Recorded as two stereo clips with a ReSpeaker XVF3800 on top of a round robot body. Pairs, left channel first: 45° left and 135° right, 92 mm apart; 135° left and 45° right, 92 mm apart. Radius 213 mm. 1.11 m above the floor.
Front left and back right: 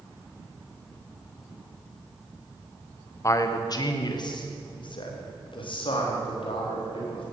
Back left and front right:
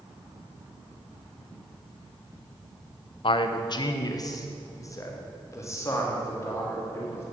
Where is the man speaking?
105° left, 0.7 m; by 7.2 s 70° left, 3 m.